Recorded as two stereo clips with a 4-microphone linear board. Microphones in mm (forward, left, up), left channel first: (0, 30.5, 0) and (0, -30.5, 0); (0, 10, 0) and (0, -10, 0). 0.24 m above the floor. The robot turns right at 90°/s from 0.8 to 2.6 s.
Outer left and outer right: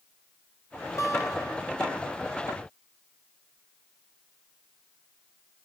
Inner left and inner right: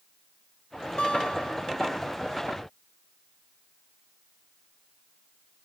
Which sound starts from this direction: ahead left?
A guitar, at 1.0 s.